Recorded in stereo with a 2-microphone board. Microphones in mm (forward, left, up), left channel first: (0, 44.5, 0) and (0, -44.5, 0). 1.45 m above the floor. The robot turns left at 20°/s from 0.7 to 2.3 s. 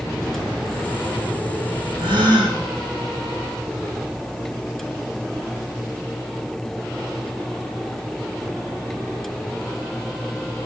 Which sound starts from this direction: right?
A gasp, at 2.0 s.